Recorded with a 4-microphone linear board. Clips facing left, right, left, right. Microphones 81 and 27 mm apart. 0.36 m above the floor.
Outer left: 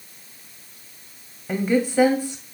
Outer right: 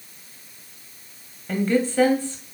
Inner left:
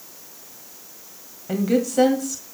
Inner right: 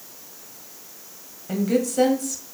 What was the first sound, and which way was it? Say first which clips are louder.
A woman speaking: even, inner left 2 dB; 10° left (ahead or behind).